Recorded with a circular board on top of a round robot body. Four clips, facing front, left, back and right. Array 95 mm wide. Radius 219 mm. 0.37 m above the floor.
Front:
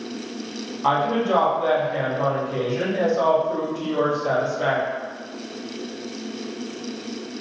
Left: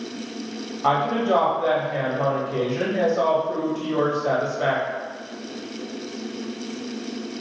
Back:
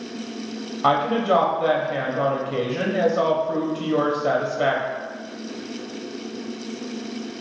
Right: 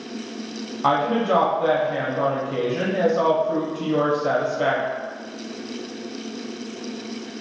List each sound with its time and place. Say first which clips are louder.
0.8 s a woman speaking: right 1 dB, back 1 dB; 160° right, 1.2 m